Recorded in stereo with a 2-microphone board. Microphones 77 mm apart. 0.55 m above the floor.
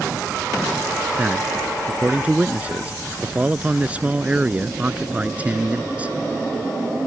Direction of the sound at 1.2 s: 20° right (ahead or behind).